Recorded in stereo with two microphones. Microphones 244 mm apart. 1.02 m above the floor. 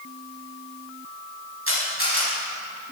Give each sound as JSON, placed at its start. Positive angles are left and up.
{"t": 1.7, "sound": "a camera shutter", "side_deg": -65, "distance_m": 6.5}